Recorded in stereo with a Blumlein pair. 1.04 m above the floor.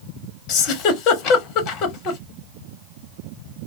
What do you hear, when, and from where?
0.5 s a giggle: 35° left, 0.8 m